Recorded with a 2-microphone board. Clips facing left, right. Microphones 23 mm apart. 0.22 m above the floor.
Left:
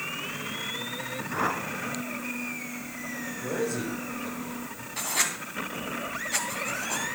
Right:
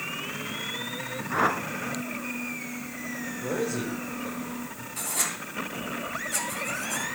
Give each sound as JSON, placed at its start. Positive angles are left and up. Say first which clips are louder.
{"t": 1.3, "sound": "a whoosh", "louder": "right 4 dB", "side_deg": -20, "distance_m": 0.7}
{"t": 3.4, "sound": "a man speaking", "louder": "right 1 dB", "side_deg": -15, "distance_m": 6.0}
{"t": 5.0, "sound": "writing", "louder": "left 3 dB", "side_deg": 30, "distance_m": 1.7}